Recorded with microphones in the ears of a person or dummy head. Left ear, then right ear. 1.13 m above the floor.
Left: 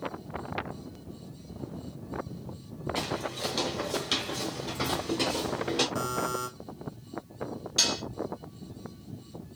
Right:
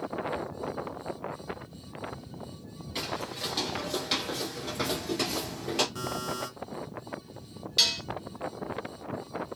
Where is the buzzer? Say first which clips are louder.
Left 3 dB; 5° right (ahead or behind), 0.9 m.